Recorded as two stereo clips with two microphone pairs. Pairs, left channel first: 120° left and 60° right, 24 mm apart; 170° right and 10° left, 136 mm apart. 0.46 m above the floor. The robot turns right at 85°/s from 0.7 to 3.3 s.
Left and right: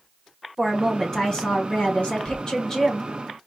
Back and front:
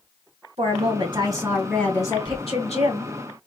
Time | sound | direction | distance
0.6 | a woman speaking | 15° left | 1.8 m